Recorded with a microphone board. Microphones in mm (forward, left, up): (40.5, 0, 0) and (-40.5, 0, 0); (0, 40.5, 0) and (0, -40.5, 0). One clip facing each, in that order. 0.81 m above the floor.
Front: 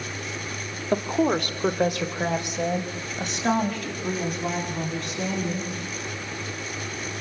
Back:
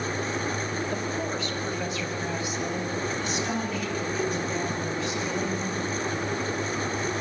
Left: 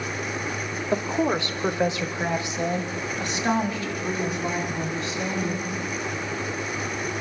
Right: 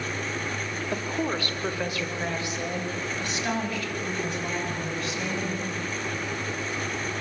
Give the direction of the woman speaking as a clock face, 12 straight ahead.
11 o'clock.